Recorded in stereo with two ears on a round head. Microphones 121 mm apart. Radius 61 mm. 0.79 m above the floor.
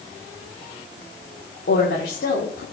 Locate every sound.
1.7 s a woman speaking: 75° left (ahead or behind), 1.5 m